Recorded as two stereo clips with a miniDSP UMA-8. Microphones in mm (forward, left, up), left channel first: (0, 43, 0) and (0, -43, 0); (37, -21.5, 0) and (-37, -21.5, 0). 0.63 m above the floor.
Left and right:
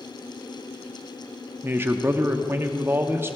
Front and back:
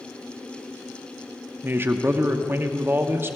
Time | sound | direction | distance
1.6 | a man speaking | 140° right | 0.6 m